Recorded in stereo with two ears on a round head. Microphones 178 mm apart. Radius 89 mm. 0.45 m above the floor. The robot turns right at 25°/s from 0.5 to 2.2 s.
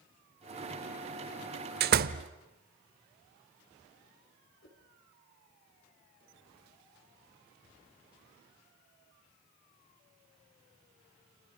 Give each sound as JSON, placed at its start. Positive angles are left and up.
{"t": 1.8, "sound": "a door slam", "side_deg": -50, "distance_m": 1.0}
{"t": 4.6, "sound": "a whoosh", "side_deg": 65, "distance_m": 4.5}